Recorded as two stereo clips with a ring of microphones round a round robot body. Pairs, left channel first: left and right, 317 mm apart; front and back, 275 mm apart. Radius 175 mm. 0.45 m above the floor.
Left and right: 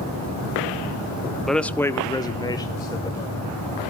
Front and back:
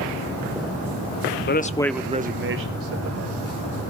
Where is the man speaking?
Straight ahead, 0.9 m; by 3.4 s 170° left, 1.9 m.